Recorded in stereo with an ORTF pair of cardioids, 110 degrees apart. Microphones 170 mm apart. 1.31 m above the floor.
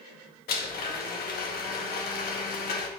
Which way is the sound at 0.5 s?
65° left.